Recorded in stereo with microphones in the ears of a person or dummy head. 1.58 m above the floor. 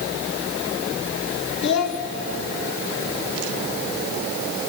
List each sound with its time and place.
1.6 s a child speaking: 65° left (ahead or behind), 1.5 m